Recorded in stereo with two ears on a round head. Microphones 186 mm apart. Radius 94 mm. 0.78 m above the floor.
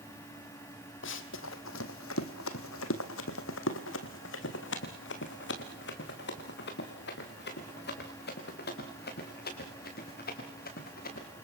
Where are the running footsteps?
60° left (ahead or behind), 2 m; by 11.3 s 50° left (ahead or behind), 8 m.